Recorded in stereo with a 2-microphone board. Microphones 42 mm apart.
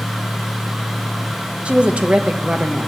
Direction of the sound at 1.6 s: 30° right (ahead or behind).